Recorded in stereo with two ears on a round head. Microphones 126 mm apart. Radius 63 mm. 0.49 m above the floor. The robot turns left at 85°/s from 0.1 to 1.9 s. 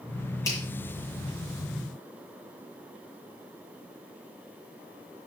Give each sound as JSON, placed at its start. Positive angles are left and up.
{"t": 0.5, "sound": "a finger snap", "side_deg": 25, "distance_m": 7.0}